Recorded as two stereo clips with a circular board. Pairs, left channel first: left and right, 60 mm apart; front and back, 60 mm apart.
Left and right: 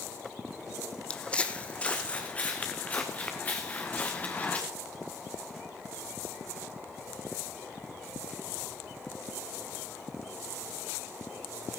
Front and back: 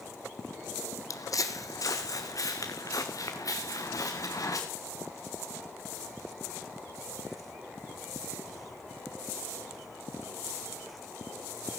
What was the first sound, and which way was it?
Footsteps, 15° left.